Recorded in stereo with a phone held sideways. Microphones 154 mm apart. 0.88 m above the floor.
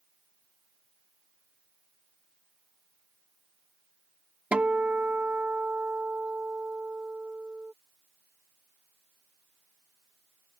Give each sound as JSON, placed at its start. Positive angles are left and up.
{"t": 4.5, "sound": "a guitar", "side_deg": -10}